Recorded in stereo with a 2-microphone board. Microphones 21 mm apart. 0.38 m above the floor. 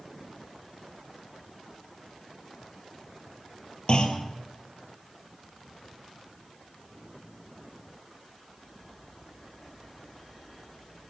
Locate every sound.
3.9 s a clunk: 45° left (ahead or behind), 2.5 m